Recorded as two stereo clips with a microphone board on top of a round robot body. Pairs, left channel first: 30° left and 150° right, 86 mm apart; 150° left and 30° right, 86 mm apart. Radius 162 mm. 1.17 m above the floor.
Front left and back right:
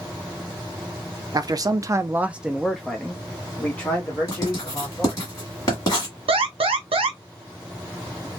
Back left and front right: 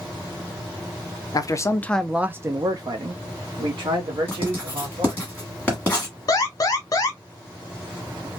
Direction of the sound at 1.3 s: Straight behind.